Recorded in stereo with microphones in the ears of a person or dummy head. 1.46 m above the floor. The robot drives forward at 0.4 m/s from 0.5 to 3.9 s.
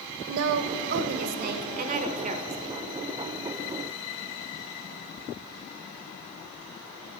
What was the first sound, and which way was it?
A woman speaking, 65° right (ahead or behind).